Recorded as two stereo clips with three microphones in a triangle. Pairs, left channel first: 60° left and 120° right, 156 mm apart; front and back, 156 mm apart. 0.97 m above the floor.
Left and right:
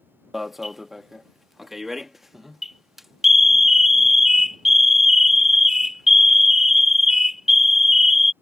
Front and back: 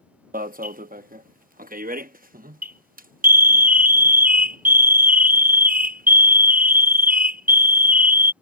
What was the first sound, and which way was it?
An alarm, 150° left.